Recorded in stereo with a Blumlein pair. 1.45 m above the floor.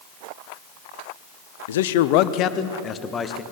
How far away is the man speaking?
About 1.1 m.